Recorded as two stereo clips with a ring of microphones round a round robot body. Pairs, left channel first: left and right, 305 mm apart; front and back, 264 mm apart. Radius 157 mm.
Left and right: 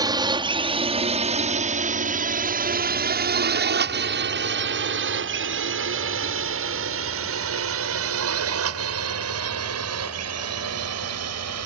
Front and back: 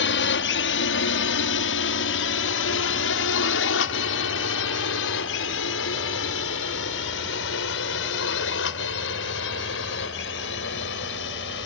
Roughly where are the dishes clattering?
I don't hear dishes clattering.